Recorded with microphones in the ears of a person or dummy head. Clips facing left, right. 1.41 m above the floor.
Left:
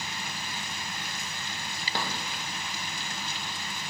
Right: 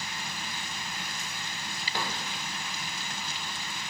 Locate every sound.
1.9 s a drawer: 30° left (ahead or behind), 0.8 m